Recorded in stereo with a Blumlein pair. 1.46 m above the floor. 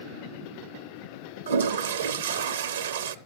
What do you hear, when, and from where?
1.5 s a toilet flushing: 65° right, 0.6 m